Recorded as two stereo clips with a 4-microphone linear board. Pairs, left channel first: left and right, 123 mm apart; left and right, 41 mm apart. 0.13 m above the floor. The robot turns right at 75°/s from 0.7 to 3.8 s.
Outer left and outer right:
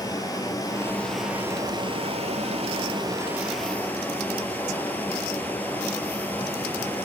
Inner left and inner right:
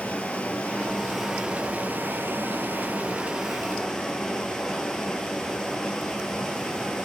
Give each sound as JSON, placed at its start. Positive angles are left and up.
{"t": 0.0, "sound": "running water", "azimuth_deg": 145, "distance_m": 1.9}